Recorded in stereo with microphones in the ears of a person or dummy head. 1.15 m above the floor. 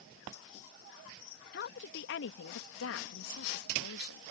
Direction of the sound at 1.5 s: 45° left (ahead or behind).